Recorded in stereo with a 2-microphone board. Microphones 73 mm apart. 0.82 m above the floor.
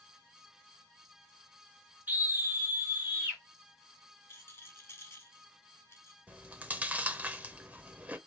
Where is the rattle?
35° left (ahead or behind), 1.2 m.